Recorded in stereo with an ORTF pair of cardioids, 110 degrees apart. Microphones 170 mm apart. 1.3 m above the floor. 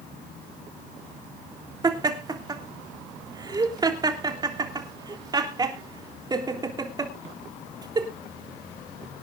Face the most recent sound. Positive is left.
turn(degrees=-25)